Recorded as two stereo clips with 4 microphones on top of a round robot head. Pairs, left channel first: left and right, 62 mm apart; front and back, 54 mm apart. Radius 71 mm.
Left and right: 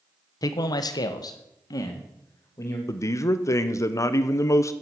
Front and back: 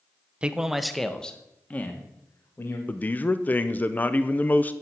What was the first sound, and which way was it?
A man speaking, 115° left.